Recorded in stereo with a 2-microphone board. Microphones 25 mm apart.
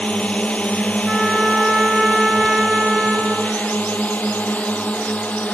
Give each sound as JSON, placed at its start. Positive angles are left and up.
{"t": 0.0, "sound": "a drone", "side_deg": 45}
{"t": 1.1, "sound": "a trumpet", "side_deg": -25}